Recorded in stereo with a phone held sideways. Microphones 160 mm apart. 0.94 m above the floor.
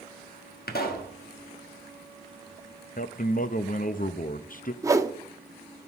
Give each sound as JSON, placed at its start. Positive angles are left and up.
{"t": 0.7, "sound": "a pop", "side_deg": 65, "distance_m": 1.2}
{"t": 3.0, "sound": "a man speaking", "side_deg": 55, "distance_m": 0.5}
{"t": 4.8, "sound": "a whoosh", "side_deg": -20, "distance_m": 0.6}